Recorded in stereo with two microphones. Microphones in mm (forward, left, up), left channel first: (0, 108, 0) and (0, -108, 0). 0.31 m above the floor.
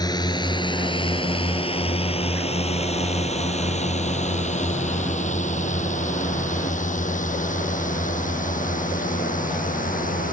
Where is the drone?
20° left (ahead or behind); by 10.3 s 40° left (ahead or behind).